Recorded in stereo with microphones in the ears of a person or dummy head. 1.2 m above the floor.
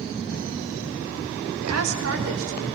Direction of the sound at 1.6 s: 80° right.